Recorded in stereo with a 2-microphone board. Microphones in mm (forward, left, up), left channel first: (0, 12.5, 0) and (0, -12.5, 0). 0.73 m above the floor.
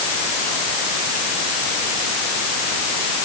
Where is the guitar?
No guitar in this recording.